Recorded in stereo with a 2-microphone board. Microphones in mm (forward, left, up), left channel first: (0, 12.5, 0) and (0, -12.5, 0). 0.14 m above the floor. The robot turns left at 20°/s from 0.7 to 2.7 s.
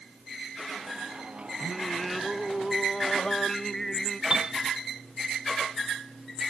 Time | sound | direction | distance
1.6 | singing | centre (ahead or behind) | ?
4.3 | a piano | 35° right (ahead or behind) | ?